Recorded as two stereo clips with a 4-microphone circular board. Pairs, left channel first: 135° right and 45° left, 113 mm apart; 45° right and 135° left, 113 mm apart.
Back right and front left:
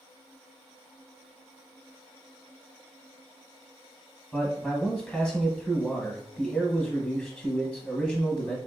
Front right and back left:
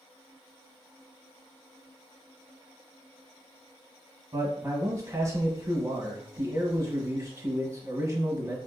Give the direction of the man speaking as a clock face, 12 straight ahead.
7 o'clock.